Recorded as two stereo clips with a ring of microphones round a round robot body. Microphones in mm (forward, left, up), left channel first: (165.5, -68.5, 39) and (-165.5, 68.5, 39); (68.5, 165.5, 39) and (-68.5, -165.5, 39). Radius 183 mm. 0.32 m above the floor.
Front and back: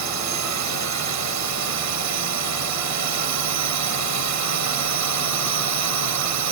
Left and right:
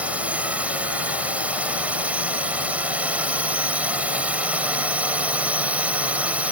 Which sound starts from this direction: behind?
A drone, at 0.0 s.